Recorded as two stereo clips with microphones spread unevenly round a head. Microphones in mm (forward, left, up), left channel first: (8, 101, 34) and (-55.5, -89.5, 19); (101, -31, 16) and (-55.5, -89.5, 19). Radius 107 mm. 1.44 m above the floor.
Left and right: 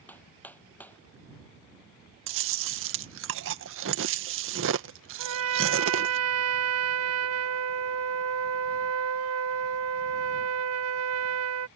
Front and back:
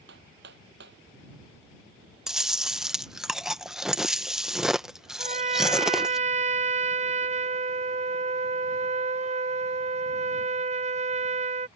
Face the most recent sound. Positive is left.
turn(degrees=-110)